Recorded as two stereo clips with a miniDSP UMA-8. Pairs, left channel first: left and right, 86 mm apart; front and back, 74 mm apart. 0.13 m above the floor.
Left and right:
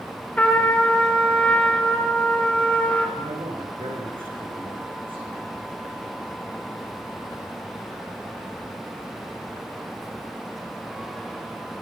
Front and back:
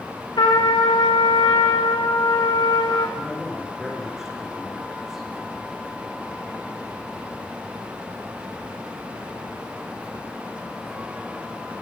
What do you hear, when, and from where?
0.4 s a trumpet: 15° left, 4.5 m
3.2 s a man speaking: 95° right, 9.5 m